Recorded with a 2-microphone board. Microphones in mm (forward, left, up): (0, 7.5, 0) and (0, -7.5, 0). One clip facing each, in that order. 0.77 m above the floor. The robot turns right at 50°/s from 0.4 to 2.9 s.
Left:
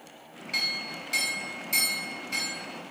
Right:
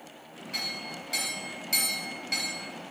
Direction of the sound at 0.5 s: 135° left.